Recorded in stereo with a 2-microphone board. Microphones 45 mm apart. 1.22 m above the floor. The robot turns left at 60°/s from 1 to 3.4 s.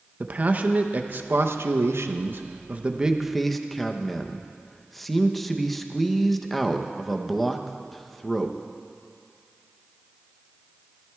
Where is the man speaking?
40° right, 0.7 m; by 8.6 s 175° left, 0.7 m.